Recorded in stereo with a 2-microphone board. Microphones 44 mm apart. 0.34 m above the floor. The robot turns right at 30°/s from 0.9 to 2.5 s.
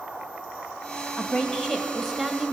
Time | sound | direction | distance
1.2 | a woman speaking | 145° left | 2 m